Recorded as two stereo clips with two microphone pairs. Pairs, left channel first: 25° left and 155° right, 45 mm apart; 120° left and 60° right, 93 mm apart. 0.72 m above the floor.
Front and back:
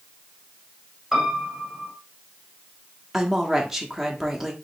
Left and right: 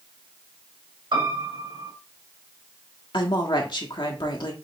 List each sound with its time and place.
1.1 s a piano: 70° right, 2.5 m
3.1 s a woman speaking: 120° left, 1.0 m